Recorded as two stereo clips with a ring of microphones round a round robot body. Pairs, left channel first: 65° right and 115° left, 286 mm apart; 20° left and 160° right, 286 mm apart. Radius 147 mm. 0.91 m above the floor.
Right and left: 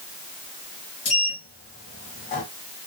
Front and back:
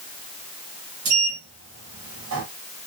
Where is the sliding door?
130° right, 1.0 m.